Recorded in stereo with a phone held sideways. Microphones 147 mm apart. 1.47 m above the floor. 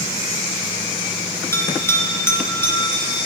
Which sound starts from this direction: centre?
A bell, at 1.5 s.